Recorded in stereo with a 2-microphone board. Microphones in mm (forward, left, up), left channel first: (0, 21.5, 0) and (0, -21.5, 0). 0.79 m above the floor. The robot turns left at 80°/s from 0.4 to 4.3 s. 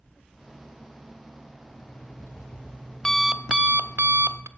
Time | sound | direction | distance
1.7 | an alarm clock | 130° left | 0.7 m